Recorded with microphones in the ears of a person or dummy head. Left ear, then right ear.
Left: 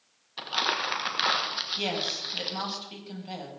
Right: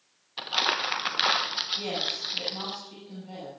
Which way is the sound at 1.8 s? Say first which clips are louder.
Even; 55° left (ahead or behind).